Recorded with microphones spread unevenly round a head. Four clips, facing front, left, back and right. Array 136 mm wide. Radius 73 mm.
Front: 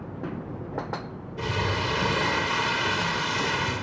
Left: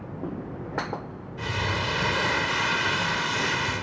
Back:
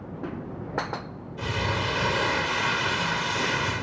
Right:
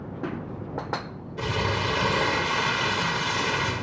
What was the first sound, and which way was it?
Crumpling, 90° right.